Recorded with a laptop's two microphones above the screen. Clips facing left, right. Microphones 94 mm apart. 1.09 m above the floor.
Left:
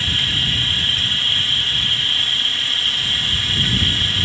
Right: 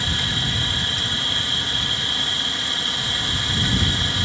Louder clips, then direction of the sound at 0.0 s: Even; 20° right (ahead or behind).